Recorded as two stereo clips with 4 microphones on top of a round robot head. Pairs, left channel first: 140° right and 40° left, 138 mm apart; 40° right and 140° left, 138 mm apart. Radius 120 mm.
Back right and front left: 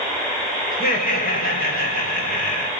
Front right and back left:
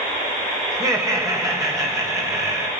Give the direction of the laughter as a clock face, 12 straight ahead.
5 o'clock.